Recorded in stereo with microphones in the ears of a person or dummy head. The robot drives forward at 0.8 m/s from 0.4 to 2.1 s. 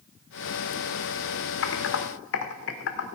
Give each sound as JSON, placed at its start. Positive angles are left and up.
{"t": 1.6, "sound": "typing on a keyboard", "side_deg": 65, "distance_m": 1.4}